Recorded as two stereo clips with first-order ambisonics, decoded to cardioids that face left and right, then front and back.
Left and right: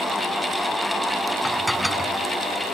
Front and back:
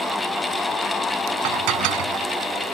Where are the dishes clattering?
Straight behind.